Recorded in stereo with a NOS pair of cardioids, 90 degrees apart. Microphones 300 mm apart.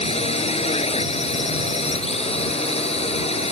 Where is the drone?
20° left.